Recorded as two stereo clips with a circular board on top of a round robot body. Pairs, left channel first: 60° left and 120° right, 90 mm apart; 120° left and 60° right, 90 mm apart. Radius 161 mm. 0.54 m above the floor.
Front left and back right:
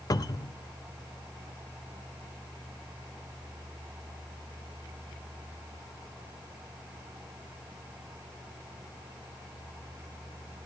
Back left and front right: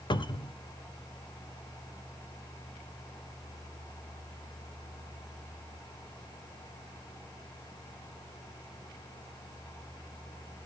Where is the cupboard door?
100° left, 1.4 m.